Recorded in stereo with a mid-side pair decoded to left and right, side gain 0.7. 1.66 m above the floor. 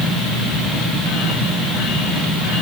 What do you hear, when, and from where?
Only background noise.